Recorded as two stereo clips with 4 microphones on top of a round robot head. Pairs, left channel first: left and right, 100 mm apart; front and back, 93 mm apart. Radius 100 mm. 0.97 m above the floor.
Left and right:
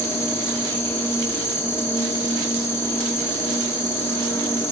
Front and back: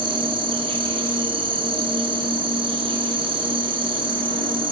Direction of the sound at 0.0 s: 160° left.